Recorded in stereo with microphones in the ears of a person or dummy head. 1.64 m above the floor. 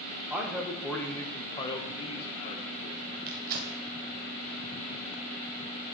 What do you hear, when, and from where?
0.3 s a man speaking: 10° right (ahead or behind), 0.8 m; by 3.2 s 45° left (ahead or behind), 1.7 m
3.3 s tearing paper: 50° right (ahead or behind), 0.8 m